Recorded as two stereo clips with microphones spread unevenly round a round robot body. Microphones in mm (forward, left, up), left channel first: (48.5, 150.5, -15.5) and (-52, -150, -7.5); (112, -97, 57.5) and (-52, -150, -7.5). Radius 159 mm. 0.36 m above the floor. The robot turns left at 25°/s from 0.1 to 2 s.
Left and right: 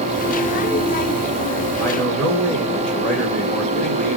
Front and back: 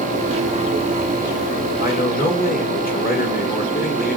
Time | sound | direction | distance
1.8 | a man speaking | 10° right | 1.6 m